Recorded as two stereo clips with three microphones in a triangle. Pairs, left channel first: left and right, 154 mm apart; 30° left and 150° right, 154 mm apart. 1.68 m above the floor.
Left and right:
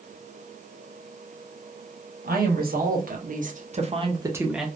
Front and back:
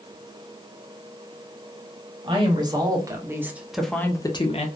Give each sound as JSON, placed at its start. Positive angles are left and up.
{"t": 2.2, "sound": "a woman speaking", "azimuth_deg": -90, "distance_m": 1.3}